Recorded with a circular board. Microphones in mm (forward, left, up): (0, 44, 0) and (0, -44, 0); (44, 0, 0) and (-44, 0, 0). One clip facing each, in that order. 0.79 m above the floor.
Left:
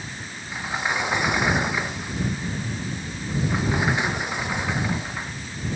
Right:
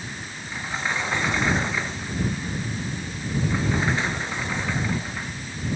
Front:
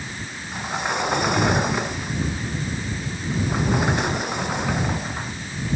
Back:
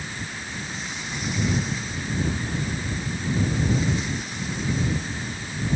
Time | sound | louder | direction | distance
0.5 | a sliding door | left 2 dB, front 8 dB | 15° left | ?